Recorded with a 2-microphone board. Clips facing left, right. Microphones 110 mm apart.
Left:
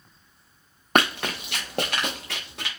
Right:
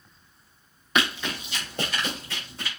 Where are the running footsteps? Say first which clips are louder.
Left 4 dB; 55° left (ahead or behind), 0.8 m; by 2.7 s 80° left, 2.5 m.